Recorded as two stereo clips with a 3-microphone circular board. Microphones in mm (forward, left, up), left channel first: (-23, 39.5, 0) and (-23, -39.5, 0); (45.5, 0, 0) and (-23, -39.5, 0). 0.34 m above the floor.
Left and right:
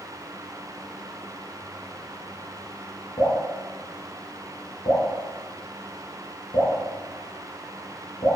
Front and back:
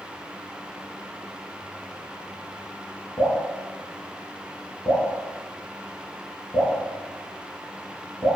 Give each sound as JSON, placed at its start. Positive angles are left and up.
{"t": 3.2, "sound": "dripping", "azimuth_deg": 85, "distance_m": 1.0}